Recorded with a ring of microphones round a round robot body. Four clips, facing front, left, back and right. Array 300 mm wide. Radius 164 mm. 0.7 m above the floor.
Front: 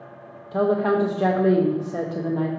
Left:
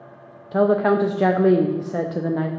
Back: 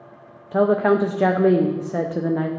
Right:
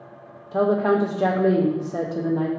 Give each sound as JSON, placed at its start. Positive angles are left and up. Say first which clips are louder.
{"t": 0.5, "sound": "a woman speaking", "louder": "left 2 dB, back 3 dB", "azimuth_deg": 140, "distance_m": 0.6}